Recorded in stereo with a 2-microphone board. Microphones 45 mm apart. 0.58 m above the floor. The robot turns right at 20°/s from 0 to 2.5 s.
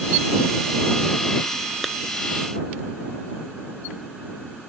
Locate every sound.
1.8 s a clap: centre (ahead or behind); by 1.9 s 5° right (ahead or behind)